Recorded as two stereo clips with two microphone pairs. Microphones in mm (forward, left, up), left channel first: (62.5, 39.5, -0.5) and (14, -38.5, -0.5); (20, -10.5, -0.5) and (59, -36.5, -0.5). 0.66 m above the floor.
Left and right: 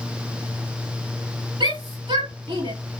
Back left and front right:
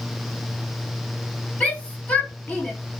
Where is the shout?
150° right, 5.5 m.